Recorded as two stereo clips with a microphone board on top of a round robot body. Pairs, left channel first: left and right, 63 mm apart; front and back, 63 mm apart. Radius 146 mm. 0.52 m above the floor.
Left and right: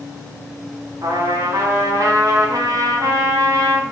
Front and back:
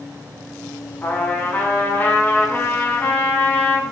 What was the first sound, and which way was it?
A trumpet, 65° right.